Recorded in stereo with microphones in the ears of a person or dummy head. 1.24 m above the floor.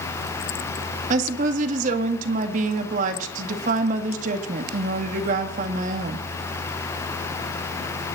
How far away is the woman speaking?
About 1.8 m.